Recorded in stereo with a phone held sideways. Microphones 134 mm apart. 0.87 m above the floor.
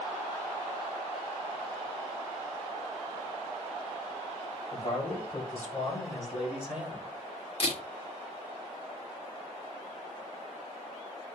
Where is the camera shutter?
45° left (ahead or behind), 1.5 m.